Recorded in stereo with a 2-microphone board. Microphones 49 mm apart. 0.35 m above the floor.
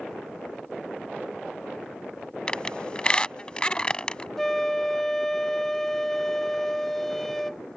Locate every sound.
2.5 s a squeak: 20° left (ahead or behind)
4.4 s a flute: 10° left (ahead or behind)